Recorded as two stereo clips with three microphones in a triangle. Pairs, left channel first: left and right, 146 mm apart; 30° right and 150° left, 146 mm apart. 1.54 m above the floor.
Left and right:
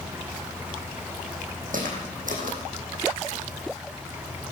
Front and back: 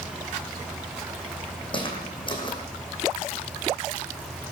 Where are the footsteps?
80° right, 3.5 m.